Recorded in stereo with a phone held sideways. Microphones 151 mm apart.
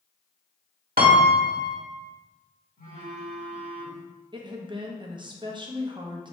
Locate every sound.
1.0 s a piano: 70° right (ahead or behind), 1.0 m
2.8 s a phone buzzing: 80° left, 1.9 m
4.3 s a woman speaking: 30° right (ahead or behind), 0.7 m